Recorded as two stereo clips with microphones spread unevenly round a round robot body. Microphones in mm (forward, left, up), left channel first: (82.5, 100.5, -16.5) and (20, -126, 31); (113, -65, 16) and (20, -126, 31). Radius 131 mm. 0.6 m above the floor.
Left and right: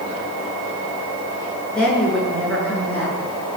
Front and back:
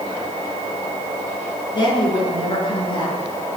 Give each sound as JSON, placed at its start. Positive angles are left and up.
{"t": 1.8, "sound": "a woman speaking", "azimuth_deg": -10, "distance_m": 7.5}